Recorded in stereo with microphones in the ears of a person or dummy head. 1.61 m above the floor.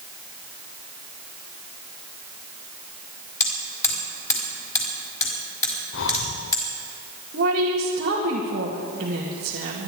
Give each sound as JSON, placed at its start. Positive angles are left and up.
{"t": 3.4, "sound": "hammering", "side_deg": 15, "distance_m": 4.0}
{"t": 5.9, "sound": "breathing", "side_deg": 65, "distance_m": 0.8}
{"t": 7.3, "sound": "a woman speaking", "side_deg": -50, "distance_m": 2.0}